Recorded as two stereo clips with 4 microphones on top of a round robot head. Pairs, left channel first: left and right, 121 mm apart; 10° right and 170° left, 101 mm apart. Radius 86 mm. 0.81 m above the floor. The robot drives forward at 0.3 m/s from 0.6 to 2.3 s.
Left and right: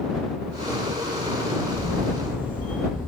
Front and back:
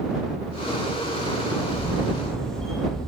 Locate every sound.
1.7 s a camera shutter: 75° left, 5 m